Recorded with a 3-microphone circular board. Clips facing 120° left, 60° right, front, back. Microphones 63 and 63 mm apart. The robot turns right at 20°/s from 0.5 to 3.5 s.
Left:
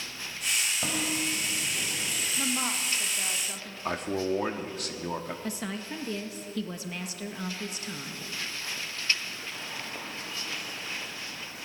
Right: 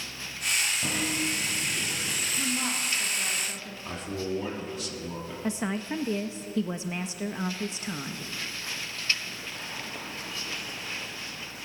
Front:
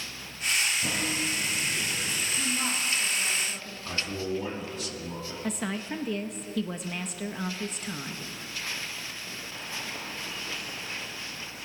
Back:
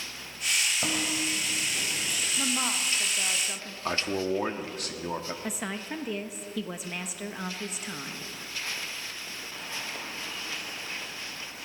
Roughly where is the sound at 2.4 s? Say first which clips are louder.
Even, back 2 dB; behind.